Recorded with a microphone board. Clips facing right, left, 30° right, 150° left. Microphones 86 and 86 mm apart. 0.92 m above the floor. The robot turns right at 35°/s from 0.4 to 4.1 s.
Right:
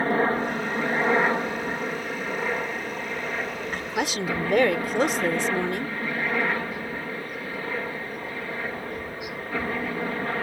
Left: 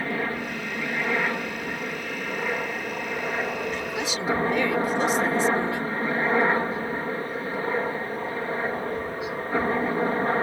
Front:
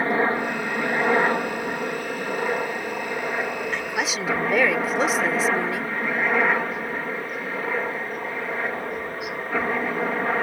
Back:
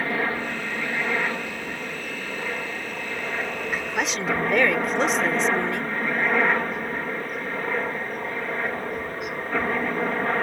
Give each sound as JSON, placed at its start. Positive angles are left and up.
{"t": 0.0, "sound": "a helicopter", "azimuth_deg": -80}
{"t": 3.7, "sound": "a woman speaking", "azimuth_deg": -130}